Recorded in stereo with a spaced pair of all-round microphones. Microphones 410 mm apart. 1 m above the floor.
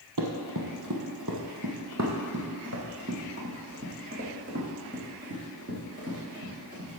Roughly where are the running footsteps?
Right.